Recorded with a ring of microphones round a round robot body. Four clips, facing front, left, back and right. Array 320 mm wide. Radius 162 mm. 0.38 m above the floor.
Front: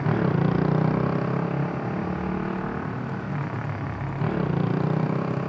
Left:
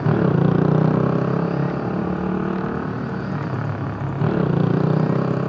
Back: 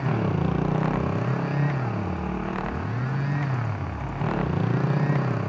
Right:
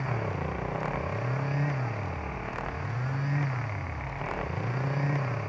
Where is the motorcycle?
85° left; by 5.5 s 90° left.